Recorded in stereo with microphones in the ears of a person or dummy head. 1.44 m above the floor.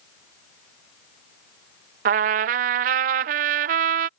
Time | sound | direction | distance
2.0 | a trumpet | 50° right (ahead or behind) | ?